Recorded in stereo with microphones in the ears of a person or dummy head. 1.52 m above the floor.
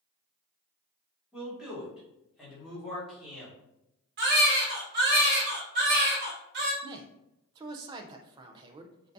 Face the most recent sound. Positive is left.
turn(degrees=-20)  # may be behind; listen again after turning